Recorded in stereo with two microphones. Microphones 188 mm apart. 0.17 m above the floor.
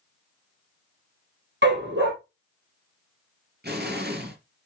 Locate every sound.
1.6 s a dog barking: 70° right (ahead or behind), 2.5 m
3.6 s an explosion: 60° right (ahead or behind), 3 m